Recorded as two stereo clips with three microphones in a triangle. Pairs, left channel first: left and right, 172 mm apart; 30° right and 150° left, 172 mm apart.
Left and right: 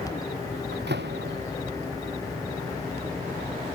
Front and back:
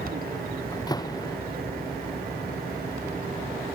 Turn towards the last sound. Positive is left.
turn(degrees=-100)